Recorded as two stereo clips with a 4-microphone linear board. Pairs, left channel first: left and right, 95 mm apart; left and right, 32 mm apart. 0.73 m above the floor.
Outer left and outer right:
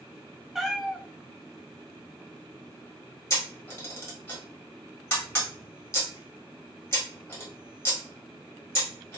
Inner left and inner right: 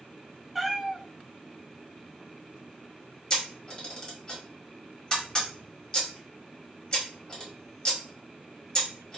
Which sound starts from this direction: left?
A camera shutter, at 3.3 s.